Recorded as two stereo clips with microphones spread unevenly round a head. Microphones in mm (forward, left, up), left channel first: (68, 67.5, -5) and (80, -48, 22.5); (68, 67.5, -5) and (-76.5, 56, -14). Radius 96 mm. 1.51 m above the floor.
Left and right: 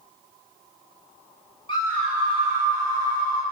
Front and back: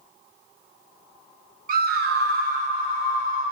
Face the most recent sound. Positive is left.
turn(degrees=-90)